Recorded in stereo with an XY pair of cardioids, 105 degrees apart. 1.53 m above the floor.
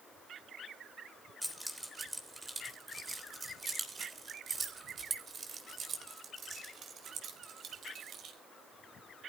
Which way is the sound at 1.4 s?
5° right.